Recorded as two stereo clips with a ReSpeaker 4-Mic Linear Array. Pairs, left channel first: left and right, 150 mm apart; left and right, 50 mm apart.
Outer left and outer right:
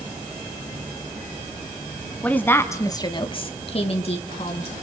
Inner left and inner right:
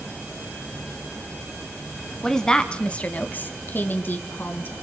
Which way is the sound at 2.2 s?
10° left (ahead or behind).